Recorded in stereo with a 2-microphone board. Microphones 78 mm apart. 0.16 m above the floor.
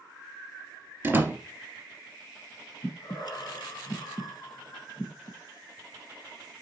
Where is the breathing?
60° left (ahead or behind), 1.4 m.